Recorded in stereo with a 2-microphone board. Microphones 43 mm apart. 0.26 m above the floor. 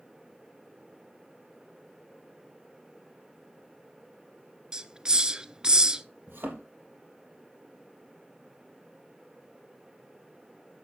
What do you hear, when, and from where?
4.7 s a hiss: 20° right (ahead or behind), 0.6 m
6.3 s a thud: 70° right (ahead or behind), 4 m